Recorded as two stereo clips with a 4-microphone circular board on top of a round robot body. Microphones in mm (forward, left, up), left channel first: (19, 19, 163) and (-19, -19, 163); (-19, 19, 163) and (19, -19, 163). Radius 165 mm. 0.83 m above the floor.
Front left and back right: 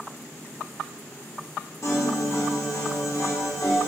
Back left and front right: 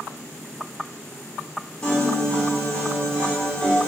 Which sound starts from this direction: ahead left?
A piano, at 1.8 s.